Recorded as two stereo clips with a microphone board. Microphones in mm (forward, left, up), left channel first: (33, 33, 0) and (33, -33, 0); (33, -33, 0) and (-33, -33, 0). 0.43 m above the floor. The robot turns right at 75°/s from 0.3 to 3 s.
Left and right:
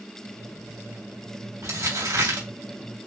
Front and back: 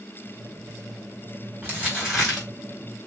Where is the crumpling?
125° right, 3.5 m; by 2.5 s 60° right, 3.5 m.